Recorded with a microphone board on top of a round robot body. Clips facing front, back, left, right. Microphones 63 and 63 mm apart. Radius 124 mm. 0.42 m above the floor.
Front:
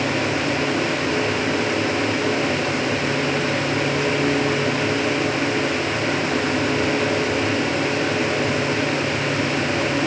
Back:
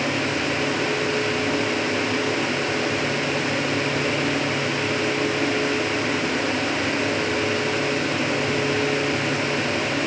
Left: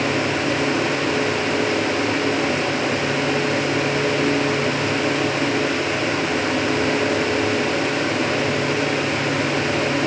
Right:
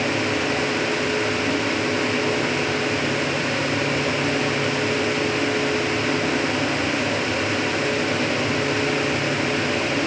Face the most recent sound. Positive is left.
No sound to turn to.